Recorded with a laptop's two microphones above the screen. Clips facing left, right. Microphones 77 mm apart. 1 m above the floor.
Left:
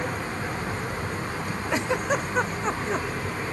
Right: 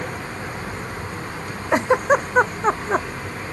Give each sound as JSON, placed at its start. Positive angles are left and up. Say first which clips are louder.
{"t": 1.7, "sound": "a giggle", "louder": "right 9 dB", "side_deg": -40}